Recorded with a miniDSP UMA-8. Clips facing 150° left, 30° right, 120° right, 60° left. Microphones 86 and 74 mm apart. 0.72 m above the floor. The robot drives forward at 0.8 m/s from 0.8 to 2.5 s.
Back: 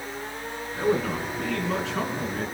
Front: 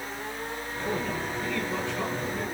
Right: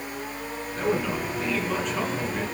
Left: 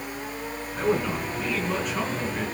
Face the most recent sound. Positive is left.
turn(degrees=145)